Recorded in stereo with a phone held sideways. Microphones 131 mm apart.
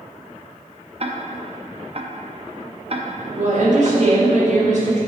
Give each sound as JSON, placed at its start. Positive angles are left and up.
{"t": 1.0, "sound": "ticking", "side_deg": -45, "distance_m": 0.6}
{"t": 3.4, "sound": "a woman speaking", "side_deg": -60, "distance_m": 1.6}